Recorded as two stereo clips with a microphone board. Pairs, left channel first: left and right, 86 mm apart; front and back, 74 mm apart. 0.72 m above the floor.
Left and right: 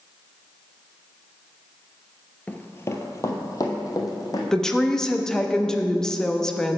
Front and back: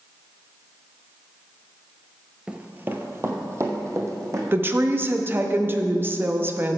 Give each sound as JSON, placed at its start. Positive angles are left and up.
{"t": 2.5, "sound": "running footsteps", "azimuth_deg": 130, "distance_m": 0.7}
{"t": 4.5, "sound": "a woman speaking", "azimuth_deg": 165, "distance_m": 0.7}